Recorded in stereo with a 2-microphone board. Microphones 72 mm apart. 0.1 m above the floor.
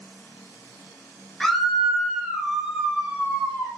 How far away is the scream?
About 1.5 m.